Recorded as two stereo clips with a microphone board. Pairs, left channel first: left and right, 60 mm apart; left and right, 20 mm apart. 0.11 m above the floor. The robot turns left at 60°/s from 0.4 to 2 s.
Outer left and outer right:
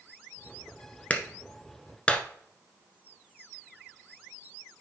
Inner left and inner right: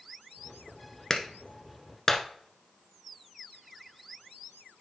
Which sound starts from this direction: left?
A clap, at 1.1 s.